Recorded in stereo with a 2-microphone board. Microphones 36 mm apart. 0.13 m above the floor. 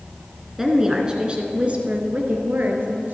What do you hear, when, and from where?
0.6 s a woman speaking: 10° right (ahead or behind), 1.4 m; by 3.1 s 55° right (ahead or behind), 2 m